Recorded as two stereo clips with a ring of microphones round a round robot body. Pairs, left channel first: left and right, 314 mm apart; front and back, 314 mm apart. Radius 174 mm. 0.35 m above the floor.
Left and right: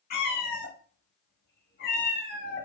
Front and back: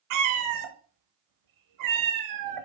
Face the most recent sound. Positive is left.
turn(degrees=155)